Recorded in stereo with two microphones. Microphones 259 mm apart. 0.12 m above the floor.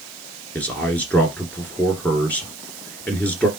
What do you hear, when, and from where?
0.6 s a man speaking: 5° left (ahead or behind), 1.6 m